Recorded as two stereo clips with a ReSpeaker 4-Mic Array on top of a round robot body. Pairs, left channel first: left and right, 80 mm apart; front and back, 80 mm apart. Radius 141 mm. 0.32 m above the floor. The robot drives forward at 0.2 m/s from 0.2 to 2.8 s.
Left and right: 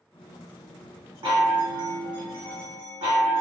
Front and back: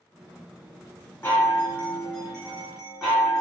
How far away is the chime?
About 0.8 m.